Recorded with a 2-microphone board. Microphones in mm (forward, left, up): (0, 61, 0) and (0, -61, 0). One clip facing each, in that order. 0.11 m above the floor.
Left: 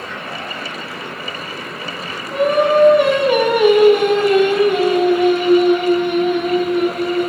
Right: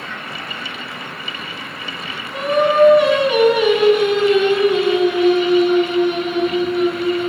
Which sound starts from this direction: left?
Singing, at 2.3 s.